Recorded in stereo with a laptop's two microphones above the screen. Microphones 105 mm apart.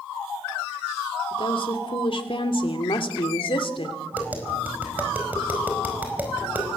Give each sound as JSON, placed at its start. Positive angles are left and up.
{"t": 1.3, "sound": "a woman speaking", "side_deg": 55, "distance_m": 2.5}
{"t": 4.1, "sound": "tapping", "side_deg": -15, "distance_m": 5.0}